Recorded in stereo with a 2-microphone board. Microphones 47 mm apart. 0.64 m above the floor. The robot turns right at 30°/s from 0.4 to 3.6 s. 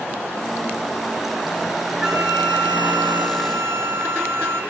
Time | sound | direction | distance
2.0 | a flute | 175° right | 2.5 m